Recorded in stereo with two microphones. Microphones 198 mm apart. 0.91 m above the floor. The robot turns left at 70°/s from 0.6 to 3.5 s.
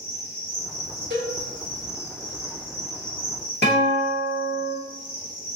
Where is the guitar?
65° left (ahead or behind), 1.6 m.